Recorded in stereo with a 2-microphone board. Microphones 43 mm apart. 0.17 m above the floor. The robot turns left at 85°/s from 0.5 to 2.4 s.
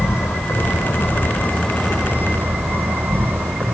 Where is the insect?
105° left, 5.5 m; by 3.8 s 60° right, 5.5 m.